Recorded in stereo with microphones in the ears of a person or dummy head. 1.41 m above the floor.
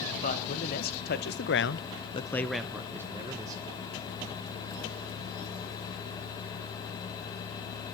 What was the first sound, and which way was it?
A man speaking, 50° left (ahead or behind).